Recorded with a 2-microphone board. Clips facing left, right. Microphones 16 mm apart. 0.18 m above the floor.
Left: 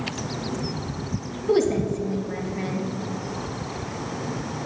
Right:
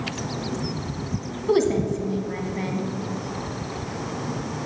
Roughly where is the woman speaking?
Right.